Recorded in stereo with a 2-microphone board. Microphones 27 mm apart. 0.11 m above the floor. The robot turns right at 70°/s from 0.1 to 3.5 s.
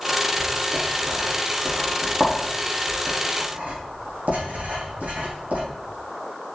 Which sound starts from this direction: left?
Writing, at 0.4 s.